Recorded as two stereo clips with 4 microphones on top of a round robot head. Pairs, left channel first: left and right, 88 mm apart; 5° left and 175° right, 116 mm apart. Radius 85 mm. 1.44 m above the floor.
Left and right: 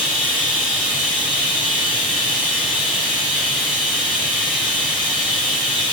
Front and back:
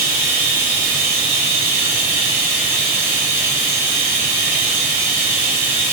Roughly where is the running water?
Behind.